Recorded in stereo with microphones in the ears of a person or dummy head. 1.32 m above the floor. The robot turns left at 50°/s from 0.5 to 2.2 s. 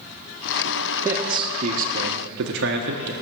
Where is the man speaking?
5° right, 1.2 m; by 3.1 s 65° right, 1.2 m.